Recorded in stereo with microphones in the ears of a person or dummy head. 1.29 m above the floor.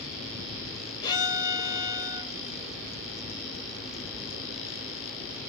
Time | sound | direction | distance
1.0 | a violin | 20° left (ahead or behind) | 0.7 m